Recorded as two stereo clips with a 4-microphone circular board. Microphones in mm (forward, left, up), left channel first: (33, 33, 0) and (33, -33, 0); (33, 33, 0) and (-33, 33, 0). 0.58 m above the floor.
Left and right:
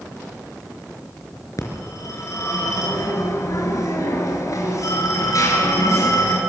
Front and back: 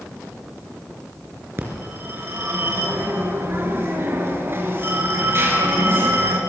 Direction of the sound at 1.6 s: 130° left.